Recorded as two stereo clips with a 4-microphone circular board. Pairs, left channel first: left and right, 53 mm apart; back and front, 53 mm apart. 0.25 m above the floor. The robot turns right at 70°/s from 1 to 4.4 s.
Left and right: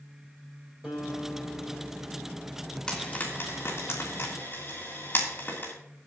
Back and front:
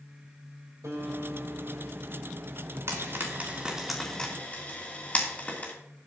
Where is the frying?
20° left, 3 m; by 5.7 s 125° left, 3 m.